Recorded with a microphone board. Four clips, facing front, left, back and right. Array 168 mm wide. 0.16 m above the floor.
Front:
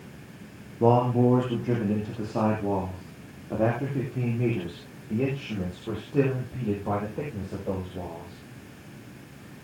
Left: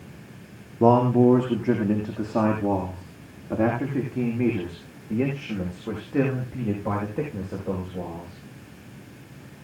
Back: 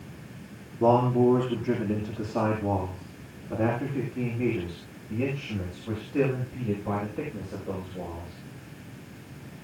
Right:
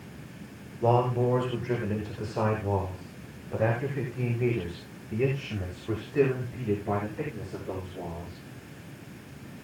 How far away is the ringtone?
I don't hear a ringtone.